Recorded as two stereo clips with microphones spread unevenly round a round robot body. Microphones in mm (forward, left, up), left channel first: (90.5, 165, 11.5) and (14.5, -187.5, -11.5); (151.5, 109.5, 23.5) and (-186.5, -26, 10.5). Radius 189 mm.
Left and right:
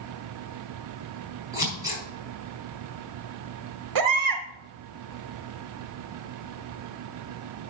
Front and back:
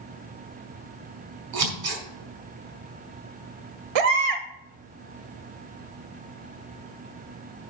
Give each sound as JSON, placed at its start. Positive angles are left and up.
{"t": 1.5, "sound": "scissors", "azimuth_deg": 175, "distance_m": 4.5}
{"t": 4.0, "sound": "a baby crying", "azimuth_deg": -140, "distance_m": 1.3}